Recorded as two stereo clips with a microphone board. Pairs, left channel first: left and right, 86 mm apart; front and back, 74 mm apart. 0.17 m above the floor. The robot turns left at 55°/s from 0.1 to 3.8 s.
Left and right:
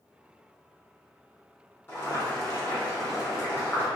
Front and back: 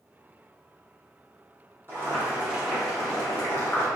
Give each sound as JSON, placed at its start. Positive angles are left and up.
{"t": 1.9, "sound": "boiling", "azimuth_deg": 145, "distance_m": 1.4}